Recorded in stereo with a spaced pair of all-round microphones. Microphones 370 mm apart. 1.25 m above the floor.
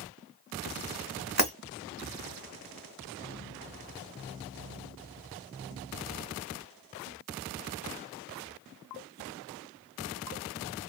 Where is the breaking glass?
45° right (ahead or behind), 1.7 m.